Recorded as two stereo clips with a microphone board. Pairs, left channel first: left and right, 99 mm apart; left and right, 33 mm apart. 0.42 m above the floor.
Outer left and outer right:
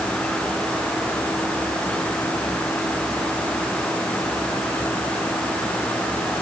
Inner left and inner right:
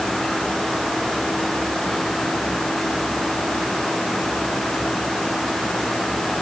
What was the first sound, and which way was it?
Only background noise.